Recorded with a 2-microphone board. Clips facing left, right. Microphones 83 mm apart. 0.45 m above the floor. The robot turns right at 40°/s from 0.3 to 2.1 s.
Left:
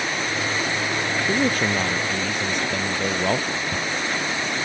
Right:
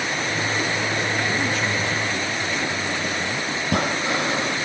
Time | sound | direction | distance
1.3 | a man speaking | 40° left | ?
3.6 | breathing | 80° right | ?